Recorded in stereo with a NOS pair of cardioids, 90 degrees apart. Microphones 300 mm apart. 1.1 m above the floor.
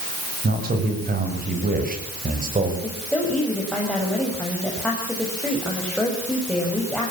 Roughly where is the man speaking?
Ahead right.